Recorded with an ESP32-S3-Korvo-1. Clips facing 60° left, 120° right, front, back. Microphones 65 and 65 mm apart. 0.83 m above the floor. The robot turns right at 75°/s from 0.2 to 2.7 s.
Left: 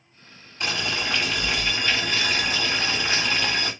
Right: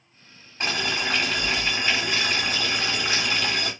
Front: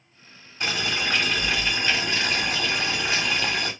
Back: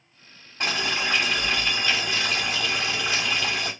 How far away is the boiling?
About 1.6 m.